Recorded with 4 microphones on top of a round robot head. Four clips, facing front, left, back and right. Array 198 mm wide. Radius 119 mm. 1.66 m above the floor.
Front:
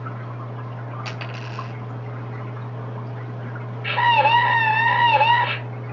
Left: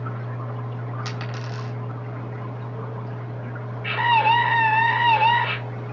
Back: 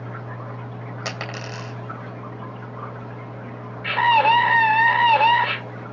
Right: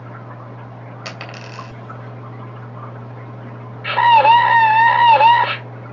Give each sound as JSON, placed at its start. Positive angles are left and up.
{"t": 1.1, "sound": "a dropped coin", "azimuth_deg": -150, "distance_m": 3.0}
{"t": 3.8, "sound": "a scream", "azimuth_deg": -90, "distance_m": 3.0}